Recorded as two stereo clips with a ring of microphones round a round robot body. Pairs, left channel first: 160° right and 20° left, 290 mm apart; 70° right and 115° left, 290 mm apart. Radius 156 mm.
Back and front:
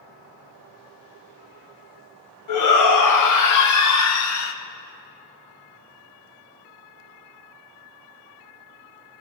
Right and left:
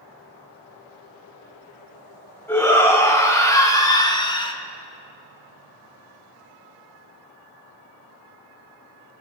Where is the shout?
150° right, 2.5 m; by 4.5 s 135° right, 1.3 m.